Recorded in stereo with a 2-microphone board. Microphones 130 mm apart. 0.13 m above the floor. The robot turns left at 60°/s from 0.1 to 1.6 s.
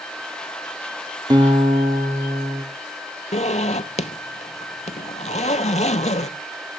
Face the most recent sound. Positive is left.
turn(degrees=75)  # may be behind; listen again after turning